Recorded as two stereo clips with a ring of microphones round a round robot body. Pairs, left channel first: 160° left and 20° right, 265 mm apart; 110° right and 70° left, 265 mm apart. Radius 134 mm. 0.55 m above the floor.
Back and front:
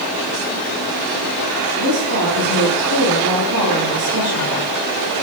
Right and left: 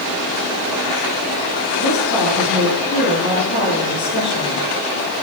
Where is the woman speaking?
60° right, 8.5 m.